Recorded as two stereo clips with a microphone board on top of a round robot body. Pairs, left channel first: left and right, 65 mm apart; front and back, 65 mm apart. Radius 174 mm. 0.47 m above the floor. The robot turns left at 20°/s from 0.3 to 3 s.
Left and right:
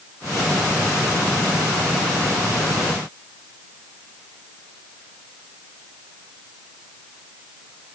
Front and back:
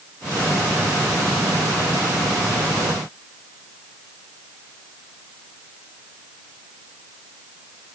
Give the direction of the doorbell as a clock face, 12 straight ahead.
I don't hear a doorbell.